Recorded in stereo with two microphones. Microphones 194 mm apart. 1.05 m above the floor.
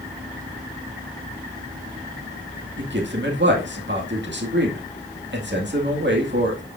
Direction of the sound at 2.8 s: 70° right (ahead or behind).